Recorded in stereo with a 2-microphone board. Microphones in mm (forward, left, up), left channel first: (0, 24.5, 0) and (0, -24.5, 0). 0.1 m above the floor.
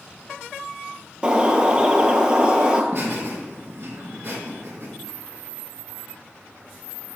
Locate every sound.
1.2 s a bird: 20° right (ahead or behind), 0.7 m
2.9 s laughter: 45° right (ahead or behind), 1.7 m